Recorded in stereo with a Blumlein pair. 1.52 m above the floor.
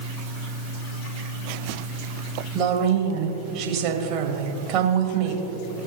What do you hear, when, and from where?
2.5 s a woman speaking: 40° right, 2 m